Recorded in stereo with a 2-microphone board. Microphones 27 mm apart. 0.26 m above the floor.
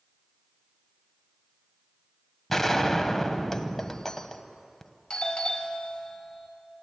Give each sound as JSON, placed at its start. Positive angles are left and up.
{"t": 2.5, "sound": "a gunshot", "side_deg": 10, "distance_m": 1.1}
{"t": 5.1, "sound": "a doorbell", "side_deg": 30, "distance_m": 1.4}